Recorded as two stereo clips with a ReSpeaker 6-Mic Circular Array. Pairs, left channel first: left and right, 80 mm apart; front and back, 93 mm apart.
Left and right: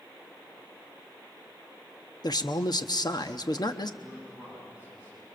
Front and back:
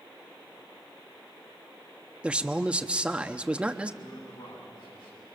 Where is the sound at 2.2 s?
105° left, 0.9 m.